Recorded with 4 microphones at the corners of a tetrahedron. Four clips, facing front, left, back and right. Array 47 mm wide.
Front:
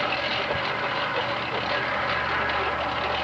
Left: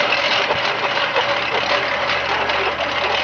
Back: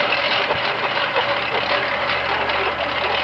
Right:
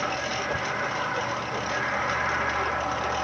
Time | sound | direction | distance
0.0 | a lawn mower | 120° left | ?